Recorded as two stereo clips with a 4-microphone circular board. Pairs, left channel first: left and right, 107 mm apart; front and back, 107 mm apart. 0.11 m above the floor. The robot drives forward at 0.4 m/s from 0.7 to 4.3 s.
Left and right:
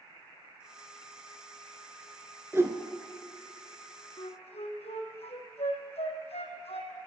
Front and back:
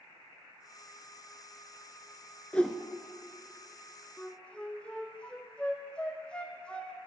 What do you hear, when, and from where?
2.5 s a whoosh: 65° right, 0.9 m; by 2.8 s 75° right, 0.9 m
4.2 s a flute: 80° left, 1.5 m